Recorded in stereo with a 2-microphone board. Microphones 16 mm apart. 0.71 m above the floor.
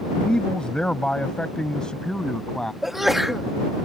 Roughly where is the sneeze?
Centre.